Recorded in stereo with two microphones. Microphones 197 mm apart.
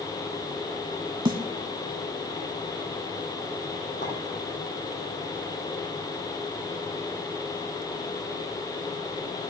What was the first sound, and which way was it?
A snare drum, 25° right (ahead or behind).